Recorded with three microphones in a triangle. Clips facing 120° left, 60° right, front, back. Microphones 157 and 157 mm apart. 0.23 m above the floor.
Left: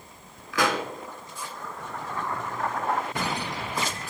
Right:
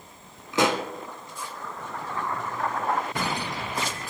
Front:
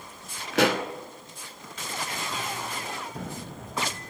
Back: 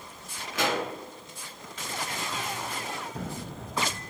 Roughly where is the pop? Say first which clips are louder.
Right 2 dB, front 5 dB; ahead.